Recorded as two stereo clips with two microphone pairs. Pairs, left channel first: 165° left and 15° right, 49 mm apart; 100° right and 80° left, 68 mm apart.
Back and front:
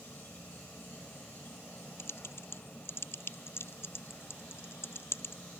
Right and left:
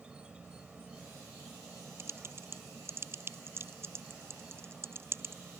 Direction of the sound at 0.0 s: 150° left.